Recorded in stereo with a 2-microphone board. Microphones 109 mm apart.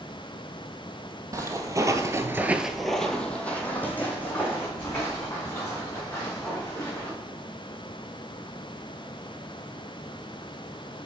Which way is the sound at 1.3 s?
30° right (ahead or behind).